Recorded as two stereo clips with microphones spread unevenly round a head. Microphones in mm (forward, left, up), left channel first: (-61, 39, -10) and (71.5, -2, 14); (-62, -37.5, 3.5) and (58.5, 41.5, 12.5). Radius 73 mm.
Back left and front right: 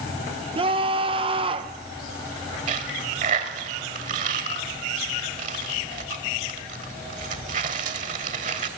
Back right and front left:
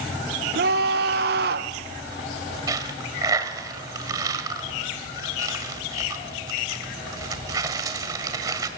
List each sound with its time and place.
0.6 s a scream: 35° left, 1.2 m
2.7 s a dropped coin: 30° right, 1.7 m